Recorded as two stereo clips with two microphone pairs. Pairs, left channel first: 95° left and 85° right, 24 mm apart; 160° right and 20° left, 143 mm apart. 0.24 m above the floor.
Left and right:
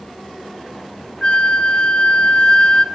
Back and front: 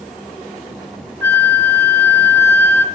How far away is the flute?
About 0.6 m.